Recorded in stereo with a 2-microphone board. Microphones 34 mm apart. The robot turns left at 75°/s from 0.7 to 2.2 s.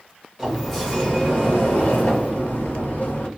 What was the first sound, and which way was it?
A sliding door, 175° left.